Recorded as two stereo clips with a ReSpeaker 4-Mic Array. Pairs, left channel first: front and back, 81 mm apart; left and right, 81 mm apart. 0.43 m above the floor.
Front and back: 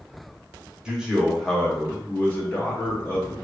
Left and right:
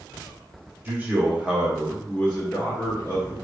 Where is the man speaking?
115° right, 0.9 m; by 3.3 s 40° left, 1.2 m.